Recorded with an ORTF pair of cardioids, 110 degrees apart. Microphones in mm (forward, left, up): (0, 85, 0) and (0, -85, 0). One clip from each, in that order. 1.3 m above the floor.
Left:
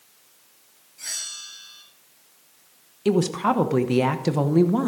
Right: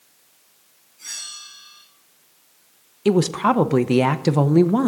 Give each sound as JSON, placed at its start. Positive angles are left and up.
{"t": 1.0, "sound": "a bell", "azimuth_deg": 55, "distance_m": 7.0}
{"t": 3.0, "sound": "a woman speaking", "azimuth_deg": -20, "distance_m": 0.8}